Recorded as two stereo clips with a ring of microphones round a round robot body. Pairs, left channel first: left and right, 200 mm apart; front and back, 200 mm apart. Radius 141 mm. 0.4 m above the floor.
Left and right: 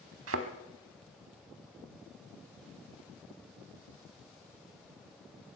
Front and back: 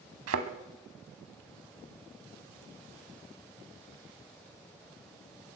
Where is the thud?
135° right, 0.9 m.